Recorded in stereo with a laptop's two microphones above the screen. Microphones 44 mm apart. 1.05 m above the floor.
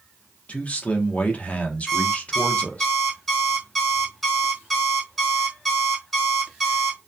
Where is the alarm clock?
5° left (ahead or behind), 0.8 m.